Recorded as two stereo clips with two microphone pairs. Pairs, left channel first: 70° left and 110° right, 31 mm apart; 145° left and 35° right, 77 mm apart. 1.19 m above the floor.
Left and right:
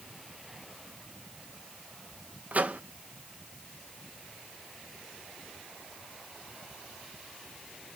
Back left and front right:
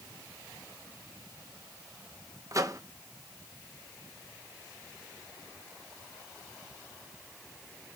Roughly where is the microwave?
Right.